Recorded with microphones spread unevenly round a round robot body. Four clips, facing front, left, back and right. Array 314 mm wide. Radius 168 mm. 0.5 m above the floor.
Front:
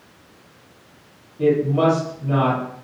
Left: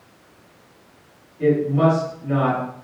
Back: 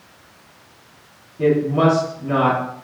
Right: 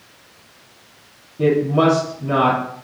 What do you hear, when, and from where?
1.4 s a woman speaking: 105° right, 5.5 m